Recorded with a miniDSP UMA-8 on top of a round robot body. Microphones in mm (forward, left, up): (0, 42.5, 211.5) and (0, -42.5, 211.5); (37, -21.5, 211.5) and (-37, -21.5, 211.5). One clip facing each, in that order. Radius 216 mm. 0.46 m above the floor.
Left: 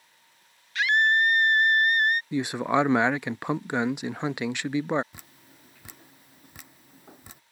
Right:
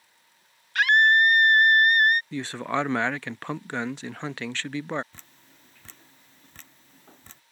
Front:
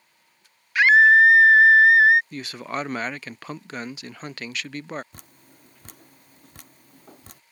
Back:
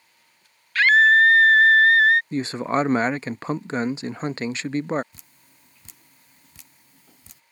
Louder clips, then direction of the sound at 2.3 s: Left 4 dB, back 8 dB; 150° left.